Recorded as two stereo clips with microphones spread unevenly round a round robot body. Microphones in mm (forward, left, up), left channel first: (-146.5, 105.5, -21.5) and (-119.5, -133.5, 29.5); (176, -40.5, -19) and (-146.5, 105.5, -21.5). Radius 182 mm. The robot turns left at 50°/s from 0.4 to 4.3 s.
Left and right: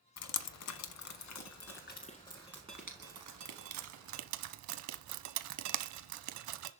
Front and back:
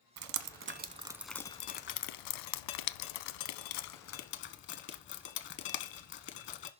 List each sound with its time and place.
0.2 s dripping: 110° left, 0.7 m; by 6.7 s 85° right, 0.7 m